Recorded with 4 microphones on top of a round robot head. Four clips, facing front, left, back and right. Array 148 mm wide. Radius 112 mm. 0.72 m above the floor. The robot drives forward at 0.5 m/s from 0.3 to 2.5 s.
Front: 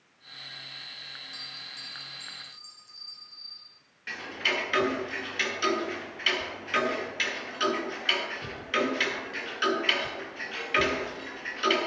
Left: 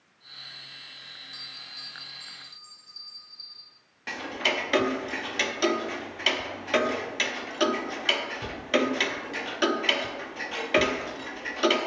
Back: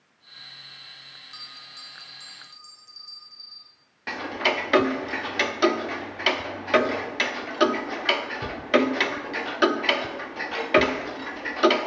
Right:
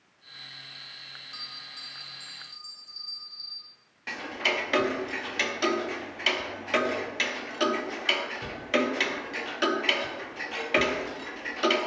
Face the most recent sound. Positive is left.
turn(degrees=170)